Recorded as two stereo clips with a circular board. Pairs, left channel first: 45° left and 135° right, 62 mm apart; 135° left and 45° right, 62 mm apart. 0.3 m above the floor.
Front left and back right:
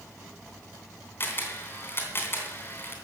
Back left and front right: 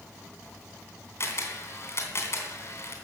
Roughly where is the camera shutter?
Left.